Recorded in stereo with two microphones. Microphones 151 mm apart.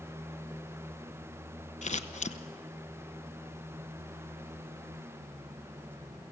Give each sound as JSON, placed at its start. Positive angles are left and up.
{"t": 1.8, "sound": "scissors", "side_deg": 50, "distance_m": 0.8}